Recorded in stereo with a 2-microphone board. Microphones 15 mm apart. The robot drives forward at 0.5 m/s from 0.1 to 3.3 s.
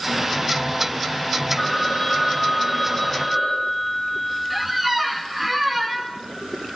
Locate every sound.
1.6 s a phone ringing: 5° left (ahead or behind), 9 m
4.5 s a squeak: 10° right (ahead or behind), 2.5 m